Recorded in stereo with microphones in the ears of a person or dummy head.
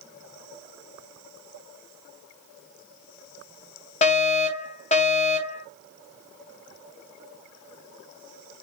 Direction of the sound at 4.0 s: 35° left (ahead or behind).